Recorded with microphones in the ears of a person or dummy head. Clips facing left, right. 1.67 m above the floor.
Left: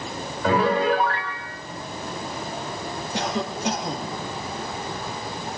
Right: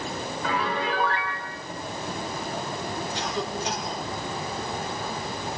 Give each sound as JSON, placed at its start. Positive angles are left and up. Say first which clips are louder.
{"t": 0.4, "sound": "a piano", "louder": "left 9 dB", "side_deg": 50, "distance_m": 3.0}
{"t": 3.1, "sound": "a cough", "louder": "left 6 dB", "side_deg": 55, "distance_m": 3.5}